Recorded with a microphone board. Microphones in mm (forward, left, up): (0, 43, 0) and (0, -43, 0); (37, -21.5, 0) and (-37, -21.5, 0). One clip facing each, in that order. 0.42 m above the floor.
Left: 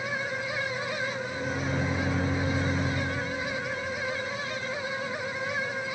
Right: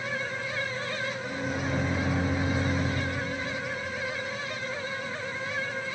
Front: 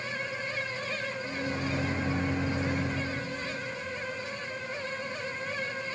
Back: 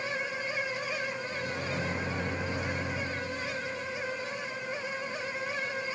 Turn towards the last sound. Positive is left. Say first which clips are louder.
# even, front 2 dB
turn(degrees=-60)